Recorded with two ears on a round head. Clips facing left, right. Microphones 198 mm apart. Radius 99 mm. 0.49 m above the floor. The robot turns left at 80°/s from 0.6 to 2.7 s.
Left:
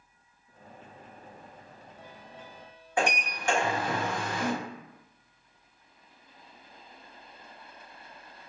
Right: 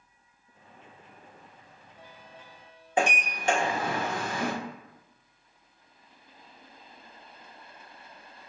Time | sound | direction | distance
3.0 | a sliding door | 20° right (ahead or behind) | 1.0 m